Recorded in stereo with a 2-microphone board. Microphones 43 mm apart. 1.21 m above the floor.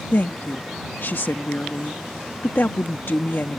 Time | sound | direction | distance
0.1 | a woman speaking | 55° left (ahead or behind) | ?